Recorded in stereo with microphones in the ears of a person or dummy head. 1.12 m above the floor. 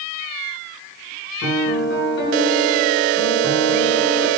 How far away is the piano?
About 7.5 m.